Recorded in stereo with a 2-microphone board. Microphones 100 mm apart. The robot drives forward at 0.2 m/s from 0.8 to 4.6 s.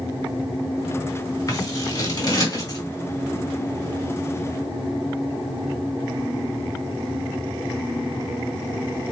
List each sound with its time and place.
1.5 s scissors: 35° left (ahead or behind), 2 m; by 2.8 s 40° left (ahead or behind), 2.0 m